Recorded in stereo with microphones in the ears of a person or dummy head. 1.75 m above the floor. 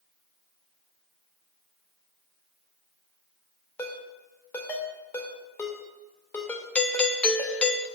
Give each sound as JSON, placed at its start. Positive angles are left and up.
{"t": 3.8, "sound": "a ringtone", "side_deg": 20, "distance_m": 2.5}
{"t": 6.8, "sound": "a doorbell", "side_deg": 10, "distance_m": 1.3}